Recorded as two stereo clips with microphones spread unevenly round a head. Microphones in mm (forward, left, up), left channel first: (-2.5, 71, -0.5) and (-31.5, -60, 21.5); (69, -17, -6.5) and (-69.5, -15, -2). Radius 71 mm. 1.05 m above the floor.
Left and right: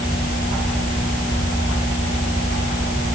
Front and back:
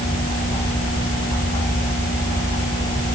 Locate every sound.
Only background noise.